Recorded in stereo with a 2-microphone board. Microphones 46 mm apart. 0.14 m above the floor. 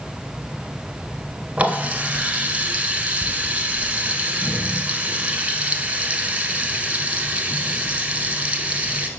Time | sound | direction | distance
1.6 | a running tap | 25° right (ahead or behind) | 0.9 m